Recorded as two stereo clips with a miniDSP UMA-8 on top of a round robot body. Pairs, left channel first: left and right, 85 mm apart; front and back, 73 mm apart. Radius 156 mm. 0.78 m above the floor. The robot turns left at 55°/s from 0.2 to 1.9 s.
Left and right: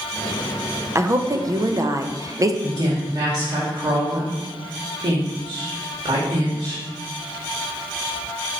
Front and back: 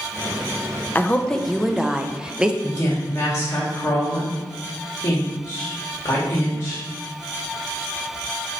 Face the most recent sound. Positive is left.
turn(degrees=-50)